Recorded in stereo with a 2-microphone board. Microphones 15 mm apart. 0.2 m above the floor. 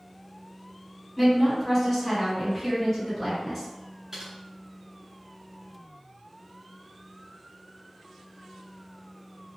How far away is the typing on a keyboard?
About 1.4 m.